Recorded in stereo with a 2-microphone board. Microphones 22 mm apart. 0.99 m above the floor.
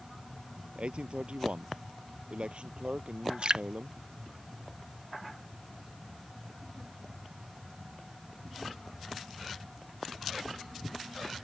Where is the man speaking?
65° right (ahead or behind); by 4.0 s 55° right (ahead or behind).